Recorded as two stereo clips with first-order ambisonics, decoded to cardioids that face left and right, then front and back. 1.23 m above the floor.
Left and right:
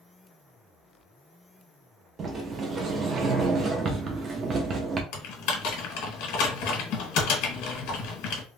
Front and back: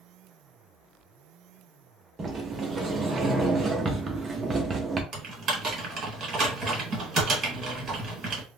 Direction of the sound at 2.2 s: 120° right.